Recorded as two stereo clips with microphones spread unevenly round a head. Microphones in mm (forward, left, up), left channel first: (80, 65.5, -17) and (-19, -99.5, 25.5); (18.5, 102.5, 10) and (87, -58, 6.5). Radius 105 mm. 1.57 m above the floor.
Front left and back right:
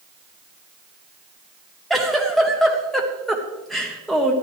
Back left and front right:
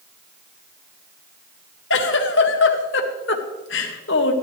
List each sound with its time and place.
1.9 s a giggle: 150° left, 0.9 m